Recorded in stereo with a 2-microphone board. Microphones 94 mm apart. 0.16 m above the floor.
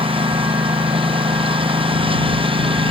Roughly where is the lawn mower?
Right.